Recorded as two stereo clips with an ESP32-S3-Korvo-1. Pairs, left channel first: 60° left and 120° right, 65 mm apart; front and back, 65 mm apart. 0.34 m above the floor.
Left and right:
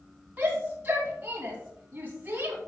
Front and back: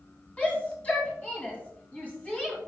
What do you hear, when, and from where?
0.4 s a shout: 65° right, 2.5 m